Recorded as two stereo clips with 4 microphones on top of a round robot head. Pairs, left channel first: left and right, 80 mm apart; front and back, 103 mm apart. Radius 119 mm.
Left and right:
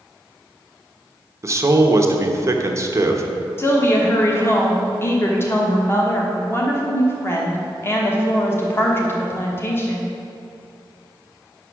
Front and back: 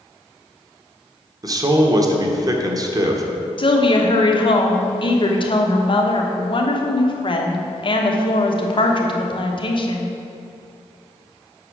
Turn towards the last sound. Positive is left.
turn(degrees=30)